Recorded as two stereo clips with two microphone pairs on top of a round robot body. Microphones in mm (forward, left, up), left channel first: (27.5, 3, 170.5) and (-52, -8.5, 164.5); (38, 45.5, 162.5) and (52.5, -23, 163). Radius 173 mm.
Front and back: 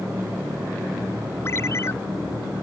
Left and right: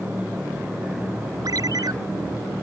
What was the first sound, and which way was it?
A ringtone, 50° right.